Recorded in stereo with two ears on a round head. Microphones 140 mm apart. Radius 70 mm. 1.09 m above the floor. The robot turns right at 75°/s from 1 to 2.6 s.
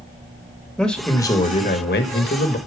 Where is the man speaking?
5° left, 1.8 m; by 2.6 s 125° left, 1.8 m.